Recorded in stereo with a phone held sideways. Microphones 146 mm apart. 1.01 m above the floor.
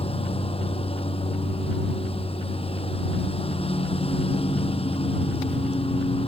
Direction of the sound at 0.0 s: 40° left (ahead or behind).